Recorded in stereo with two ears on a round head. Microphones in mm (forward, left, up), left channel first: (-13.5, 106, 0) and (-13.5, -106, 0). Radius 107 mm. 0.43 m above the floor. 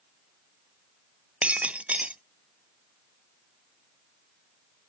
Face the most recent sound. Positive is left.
turn(degrees=-5)  # may be behind; listen again after turning